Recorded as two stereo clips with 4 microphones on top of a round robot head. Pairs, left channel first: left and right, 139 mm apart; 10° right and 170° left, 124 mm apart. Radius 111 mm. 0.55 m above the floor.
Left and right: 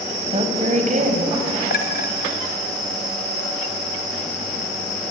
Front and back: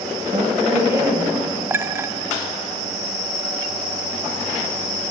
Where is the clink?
100° left, 2 m.